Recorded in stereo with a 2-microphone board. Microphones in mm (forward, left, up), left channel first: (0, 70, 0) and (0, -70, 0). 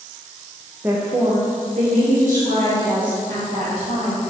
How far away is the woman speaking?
About 0.7 m.